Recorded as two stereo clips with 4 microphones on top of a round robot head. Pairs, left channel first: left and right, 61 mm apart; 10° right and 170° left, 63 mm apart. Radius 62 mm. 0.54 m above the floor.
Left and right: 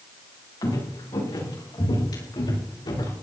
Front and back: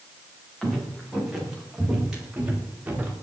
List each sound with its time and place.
0.6 s footsteps: 80° left, 9.5 m; by 3.1 s 100° left, 8.5 m